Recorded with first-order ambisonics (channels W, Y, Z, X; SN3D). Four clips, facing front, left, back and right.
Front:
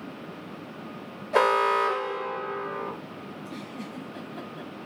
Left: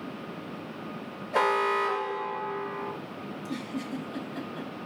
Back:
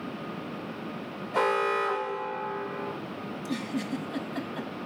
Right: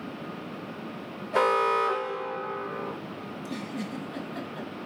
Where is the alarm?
5° right, 2 m.